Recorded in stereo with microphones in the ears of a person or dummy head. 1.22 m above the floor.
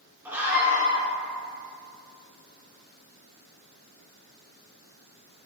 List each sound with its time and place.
0.2 s a scream: 10° right (ahead or behind), 2 m